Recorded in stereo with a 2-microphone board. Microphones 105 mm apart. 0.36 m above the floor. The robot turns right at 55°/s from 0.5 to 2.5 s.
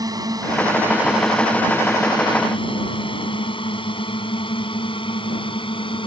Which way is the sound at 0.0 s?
35° right (ahead or behind).